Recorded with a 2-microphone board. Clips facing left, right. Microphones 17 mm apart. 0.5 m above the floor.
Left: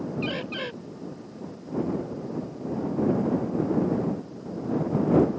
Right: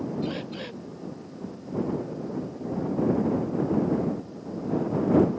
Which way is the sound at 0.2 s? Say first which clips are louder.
Left 2 dB; 80° left.